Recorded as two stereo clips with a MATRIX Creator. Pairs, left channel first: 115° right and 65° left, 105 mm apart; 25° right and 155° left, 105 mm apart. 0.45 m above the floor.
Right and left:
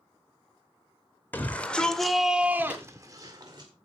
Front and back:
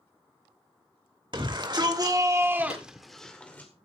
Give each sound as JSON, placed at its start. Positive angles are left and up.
{"t": 1.3, "sound": "a shout", "azimuth_deg": 180, "distance_m": 2.0}
{"t": 2.7, "sound": "a clap", "azimuth_deg": -10, "distance_m": 8.0}